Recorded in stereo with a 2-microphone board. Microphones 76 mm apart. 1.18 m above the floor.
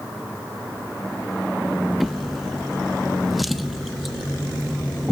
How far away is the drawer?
About 0.6 m.